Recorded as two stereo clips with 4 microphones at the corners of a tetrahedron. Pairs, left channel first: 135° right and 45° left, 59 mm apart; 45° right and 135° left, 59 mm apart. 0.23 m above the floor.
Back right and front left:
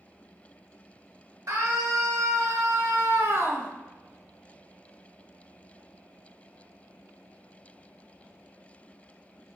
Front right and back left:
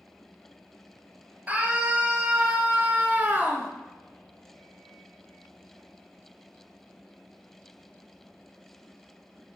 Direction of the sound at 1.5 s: 70° left.